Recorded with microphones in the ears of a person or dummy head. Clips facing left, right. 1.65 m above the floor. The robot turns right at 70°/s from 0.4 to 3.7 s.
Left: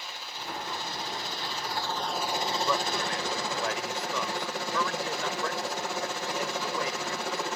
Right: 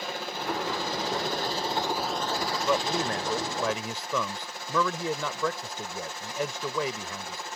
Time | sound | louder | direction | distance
0.0 | a helicopter | right 9 dB | 120° right | ?
2.6 | a man speaking | right 6 dB | 175° right | ?